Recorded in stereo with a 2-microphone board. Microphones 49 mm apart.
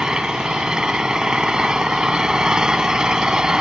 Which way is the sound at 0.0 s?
15° right (ahead or behind).